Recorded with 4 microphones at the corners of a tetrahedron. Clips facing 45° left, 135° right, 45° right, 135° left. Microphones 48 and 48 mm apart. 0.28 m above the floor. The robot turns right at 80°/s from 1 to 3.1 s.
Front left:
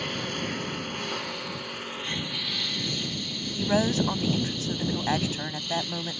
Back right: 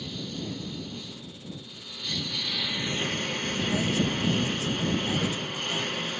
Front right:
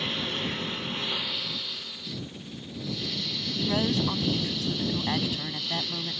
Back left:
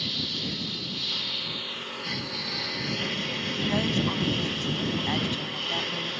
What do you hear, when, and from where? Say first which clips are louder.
0.0 s a lawn mower: front left 5 dB, front right 2 dB; 15° left; by 6.2 s 175° right
3.5 s a woman speaking: front left 4 dB, front right 1 dB; 45° left